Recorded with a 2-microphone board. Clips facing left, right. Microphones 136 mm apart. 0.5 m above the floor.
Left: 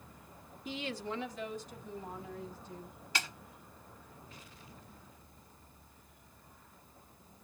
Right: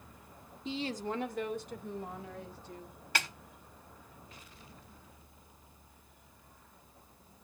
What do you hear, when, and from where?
0.7 s a woman speaking: 25° right (ahead or behind), 1.3 m; by 3.0 s 75° right (ahead or behind), 4 m
3.1 s a snare drum: 60° right (ahead or behind), 3.5 m